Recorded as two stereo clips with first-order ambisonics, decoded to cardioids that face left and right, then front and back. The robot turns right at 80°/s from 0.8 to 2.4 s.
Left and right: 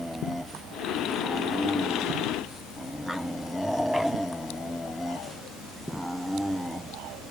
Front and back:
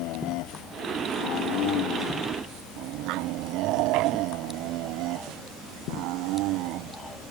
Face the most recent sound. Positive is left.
No sound to turn to.